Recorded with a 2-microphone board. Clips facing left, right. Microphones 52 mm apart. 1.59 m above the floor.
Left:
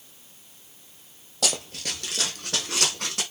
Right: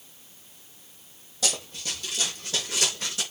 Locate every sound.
1.4 s running footsteps: 60° left (ahead or behind), 4 m; by 3.2 s 55° left (ahead or behind), 5 m